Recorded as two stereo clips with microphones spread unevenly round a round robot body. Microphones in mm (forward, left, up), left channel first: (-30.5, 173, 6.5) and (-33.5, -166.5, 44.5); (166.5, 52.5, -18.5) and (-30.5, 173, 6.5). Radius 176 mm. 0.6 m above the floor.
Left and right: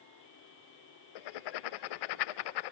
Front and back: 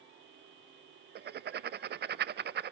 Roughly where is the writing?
Left.